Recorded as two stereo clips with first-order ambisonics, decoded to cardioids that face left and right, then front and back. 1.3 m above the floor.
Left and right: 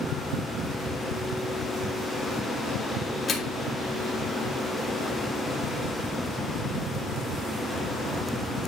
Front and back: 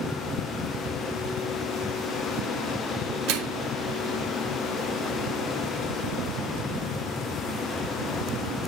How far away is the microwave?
About 2.5 m.